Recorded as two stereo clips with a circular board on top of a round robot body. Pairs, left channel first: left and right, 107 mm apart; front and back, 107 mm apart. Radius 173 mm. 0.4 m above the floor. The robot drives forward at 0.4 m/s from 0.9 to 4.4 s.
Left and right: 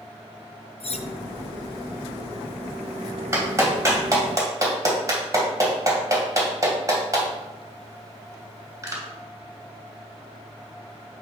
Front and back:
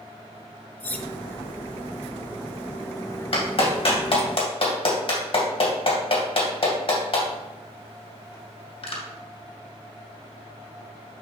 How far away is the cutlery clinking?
About 0.8 m.